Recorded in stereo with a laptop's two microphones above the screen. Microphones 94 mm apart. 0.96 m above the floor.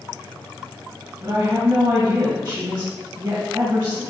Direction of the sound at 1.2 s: 25° right (ahead or behind).